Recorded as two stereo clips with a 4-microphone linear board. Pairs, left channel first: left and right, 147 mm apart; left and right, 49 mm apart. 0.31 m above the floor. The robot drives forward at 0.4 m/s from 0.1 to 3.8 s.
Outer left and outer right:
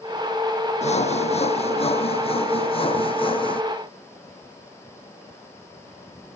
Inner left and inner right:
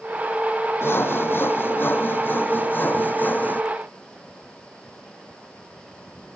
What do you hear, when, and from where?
0.8 s sawing: 50° left (ahead or behind); by 3.6 s 35° left (ahead or behind)